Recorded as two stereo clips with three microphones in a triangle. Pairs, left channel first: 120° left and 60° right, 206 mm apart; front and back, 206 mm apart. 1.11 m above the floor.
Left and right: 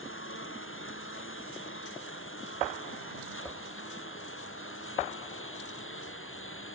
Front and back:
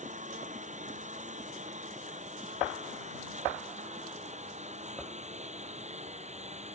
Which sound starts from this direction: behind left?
A lawn mower, at 0.0 s.